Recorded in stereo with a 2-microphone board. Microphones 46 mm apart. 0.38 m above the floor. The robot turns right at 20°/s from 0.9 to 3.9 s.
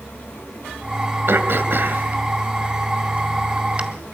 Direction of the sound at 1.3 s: 60° right (ahead or behind).